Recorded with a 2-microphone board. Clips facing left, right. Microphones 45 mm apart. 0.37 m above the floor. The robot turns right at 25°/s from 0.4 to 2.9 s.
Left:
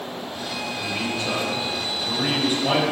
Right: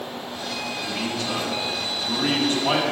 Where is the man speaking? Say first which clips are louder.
Left 2 dB; 125° left, 1.6 m; by 2.8 s 175° left, 1.6 m.